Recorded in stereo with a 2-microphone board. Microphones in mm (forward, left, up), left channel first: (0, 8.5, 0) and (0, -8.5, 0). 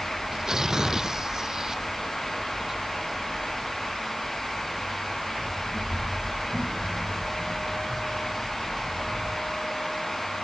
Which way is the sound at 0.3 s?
35° right (ahead or behind).